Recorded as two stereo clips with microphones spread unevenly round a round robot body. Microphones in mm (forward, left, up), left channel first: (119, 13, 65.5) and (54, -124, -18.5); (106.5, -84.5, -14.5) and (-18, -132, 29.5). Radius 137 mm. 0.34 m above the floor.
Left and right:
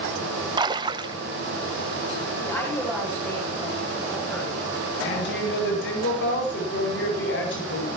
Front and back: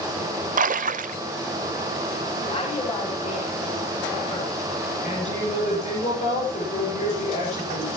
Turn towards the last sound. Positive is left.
turn(degrees=75)